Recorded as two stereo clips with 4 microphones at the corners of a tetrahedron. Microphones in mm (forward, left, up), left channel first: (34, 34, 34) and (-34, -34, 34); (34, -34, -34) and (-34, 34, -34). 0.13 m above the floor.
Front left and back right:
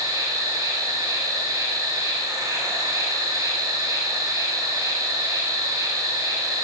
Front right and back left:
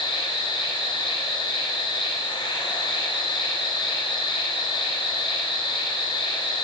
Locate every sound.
0.0 s an insect: 85° right, 9 m